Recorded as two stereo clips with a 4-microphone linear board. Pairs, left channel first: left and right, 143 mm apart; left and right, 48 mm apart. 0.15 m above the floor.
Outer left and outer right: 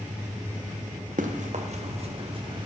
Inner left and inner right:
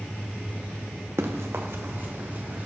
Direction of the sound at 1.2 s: 70° right (ahead or behind).